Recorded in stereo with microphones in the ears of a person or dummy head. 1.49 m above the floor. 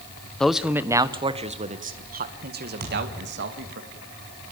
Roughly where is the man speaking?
Centre.